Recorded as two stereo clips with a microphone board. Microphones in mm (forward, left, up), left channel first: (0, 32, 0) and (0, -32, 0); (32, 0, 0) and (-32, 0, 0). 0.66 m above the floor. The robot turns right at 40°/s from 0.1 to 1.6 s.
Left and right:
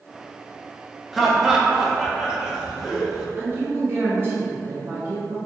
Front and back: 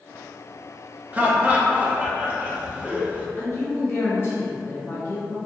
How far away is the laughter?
About 0.6 m.